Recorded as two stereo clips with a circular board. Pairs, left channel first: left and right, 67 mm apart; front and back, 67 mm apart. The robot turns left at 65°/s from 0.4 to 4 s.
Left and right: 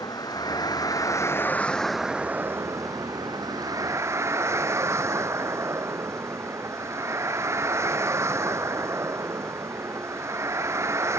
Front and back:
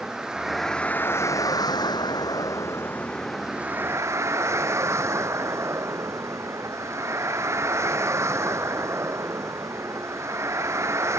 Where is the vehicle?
100° left; by 11.2 s 135° right.